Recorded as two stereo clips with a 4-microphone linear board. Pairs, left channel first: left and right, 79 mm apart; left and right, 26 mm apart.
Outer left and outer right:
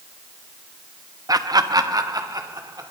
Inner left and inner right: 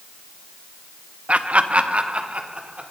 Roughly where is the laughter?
Right.